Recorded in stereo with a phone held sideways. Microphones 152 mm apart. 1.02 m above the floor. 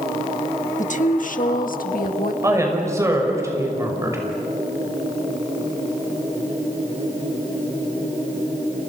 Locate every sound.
0.8 s a woman speaking: 55° left (ahead or behind), 1.5 m; by 2.3 s 70° left (ahead or behind), 2 m
2.4 s a woman speaking: 20° right (ahead or behind), 6 m